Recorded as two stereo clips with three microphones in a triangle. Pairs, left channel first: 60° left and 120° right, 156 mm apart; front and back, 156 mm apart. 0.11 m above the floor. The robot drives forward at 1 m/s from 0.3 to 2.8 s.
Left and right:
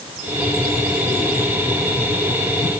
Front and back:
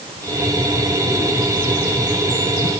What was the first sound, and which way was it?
Only background noise.